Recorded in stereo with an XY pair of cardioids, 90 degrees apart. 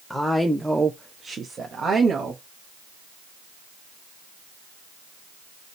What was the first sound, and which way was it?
A woman speaking, 10° left.